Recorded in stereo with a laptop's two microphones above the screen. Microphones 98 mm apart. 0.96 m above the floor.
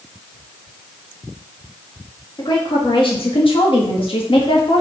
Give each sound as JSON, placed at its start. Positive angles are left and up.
{"t": 2.4, "sound": "a woman speaking", "side_deg": 50, "distance_m": 1.9}